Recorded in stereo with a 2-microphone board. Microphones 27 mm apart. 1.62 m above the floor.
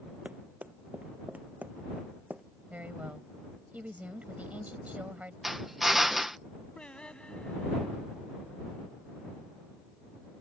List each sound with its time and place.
0.2 s running footsteps: 75° right (ahead or behind); by 2.4 s 70° right (ahead or behind)
2.7 s a woman speaking: 70° right (ahead or behind)
5.4 s a drill: 15° right (ahead or behind)
6.8 s singing: 40° left (ahead or behind)